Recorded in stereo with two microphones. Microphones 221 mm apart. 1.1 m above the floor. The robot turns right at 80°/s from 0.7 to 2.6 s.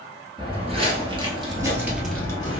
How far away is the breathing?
No breathing in this recording.